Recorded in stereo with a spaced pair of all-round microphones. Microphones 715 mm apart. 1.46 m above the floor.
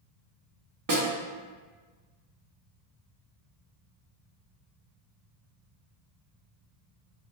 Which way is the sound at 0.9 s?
30° right (ahead or behind).